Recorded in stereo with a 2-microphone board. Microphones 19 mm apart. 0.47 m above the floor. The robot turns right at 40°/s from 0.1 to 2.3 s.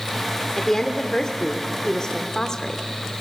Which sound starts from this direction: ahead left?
A woman speaking, at 0.6 s.